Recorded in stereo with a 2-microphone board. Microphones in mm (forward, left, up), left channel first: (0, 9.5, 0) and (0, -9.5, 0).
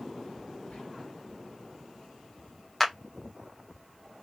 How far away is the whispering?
About 1.3 m.